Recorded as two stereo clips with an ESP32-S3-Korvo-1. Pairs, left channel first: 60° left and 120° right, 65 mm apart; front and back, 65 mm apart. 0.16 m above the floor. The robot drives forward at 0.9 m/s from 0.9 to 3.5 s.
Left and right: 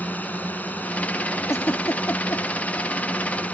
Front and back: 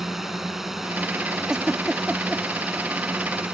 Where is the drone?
100° left; by 3.5 s 105° left.